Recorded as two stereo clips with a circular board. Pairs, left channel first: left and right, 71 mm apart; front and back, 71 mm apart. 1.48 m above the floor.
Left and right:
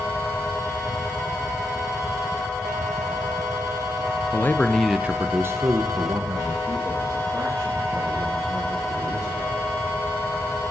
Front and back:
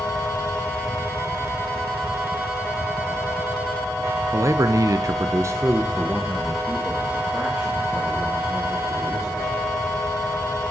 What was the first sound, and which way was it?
A man speaking, 140° left.